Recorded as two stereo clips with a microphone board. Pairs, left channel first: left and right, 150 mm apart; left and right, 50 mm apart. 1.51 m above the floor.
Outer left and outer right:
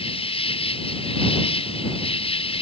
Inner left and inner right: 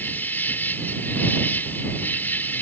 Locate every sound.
0.0 s an insect: 40° left (ahead or behind)